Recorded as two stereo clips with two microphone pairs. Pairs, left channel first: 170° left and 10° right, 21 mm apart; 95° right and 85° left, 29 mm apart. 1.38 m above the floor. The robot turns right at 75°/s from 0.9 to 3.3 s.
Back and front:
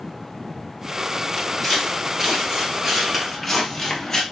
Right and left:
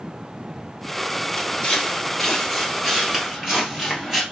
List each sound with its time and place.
1.4 s footsteps: 115° right, 1.7 m; by 4.2 s 140° left, 1.4 m